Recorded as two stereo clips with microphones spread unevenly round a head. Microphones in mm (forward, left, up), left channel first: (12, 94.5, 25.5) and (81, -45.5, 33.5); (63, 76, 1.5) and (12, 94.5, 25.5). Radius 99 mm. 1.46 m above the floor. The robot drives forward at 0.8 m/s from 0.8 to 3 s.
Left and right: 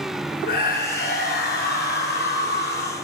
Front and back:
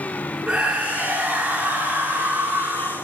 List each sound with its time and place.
0.5 s a scream: 95° left, 5 m; by 3.0 s 115° left, 5 m